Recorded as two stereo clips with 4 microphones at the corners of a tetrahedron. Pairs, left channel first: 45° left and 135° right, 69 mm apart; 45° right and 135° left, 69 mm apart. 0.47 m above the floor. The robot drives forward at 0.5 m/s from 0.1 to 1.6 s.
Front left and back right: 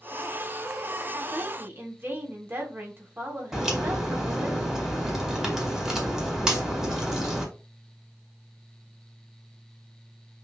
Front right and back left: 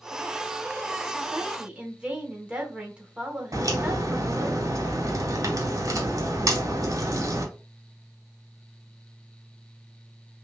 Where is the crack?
145° left, 1.8 m.